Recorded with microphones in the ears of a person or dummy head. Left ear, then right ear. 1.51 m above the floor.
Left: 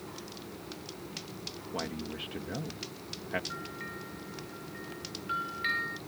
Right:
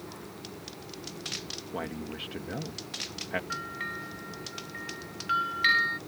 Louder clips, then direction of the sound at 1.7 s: Even; 5° right (ahead or behind).